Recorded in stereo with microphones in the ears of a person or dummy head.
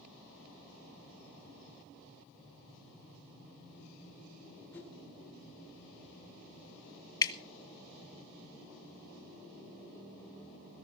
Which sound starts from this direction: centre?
A whoosh, at 4.7 s.